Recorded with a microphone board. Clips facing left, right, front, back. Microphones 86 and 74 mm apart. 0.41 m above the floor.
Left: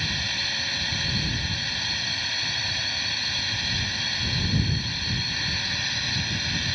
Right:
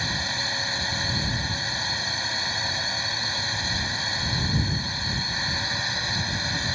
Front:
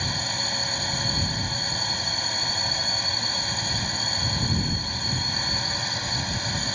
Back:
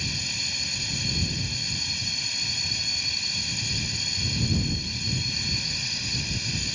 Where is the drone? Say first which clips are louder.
Right 3 dB, front 6 dB; 30° right.